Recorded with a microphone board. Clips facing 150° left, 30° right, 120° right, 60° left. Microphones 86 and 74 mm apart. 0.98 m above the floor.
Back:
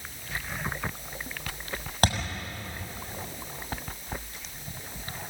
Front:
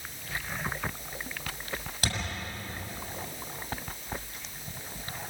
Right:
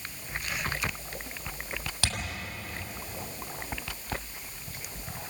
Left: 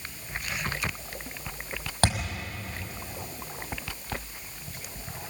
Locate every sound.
2.0 s a thud: 110° left, 6.5 m